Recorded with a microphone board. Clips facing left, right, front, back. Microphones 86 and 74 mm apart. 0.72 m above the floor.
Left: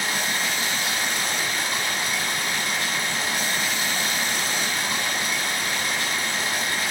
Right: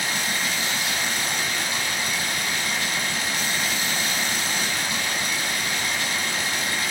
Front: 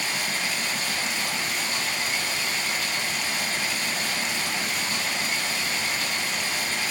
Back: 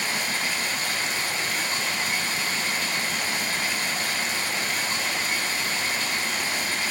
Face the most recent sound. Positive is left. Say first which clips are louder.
# left 1 dB, back 1 dB
turn(degrees=130)